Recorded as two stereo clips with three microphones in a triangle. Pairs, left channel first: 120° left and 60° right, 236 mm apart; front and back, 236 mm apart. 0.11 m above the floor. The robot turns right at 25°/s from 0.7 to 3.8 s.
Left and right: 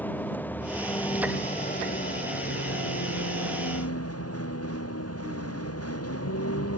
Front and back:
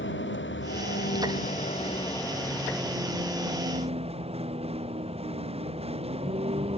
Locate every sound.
0.0 s a vehicle: 40° left; by 6.8 s 115° left